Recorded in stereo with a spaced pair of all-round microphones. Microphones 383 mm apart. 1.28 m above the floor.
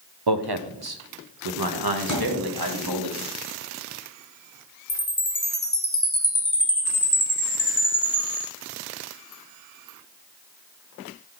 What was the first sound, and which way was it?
A man speaking, 80° right.